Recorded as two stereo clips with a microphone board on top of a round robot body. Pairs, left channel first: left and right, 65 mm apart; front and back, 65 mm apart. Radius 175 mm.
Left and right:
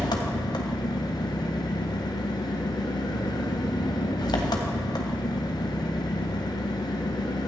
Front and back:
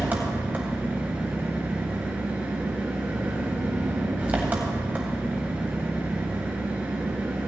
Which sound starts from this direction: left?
An engine running, at 0.0 s.